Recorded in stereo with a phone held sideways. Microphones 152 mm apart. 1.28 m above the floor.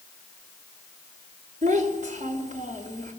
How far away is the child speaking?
About 2.5 m.